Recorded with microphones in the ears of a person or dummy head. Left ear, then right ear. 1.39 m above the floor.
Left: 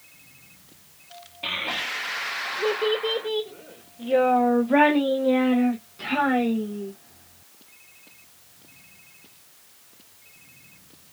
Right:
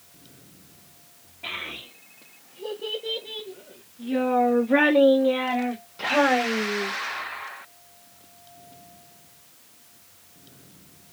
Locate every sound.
1.4 s a child speaking: 85° left, 1.4 m; by 6.9 s 30° right (ahead or behind), 1.9 m